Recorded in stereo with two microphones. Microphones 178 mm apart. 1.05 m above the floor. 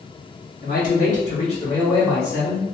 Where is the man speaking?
60° left (ahead or behind), 1.5 m; by 2.6 s 10° left (ahead or behind), 1.8 m.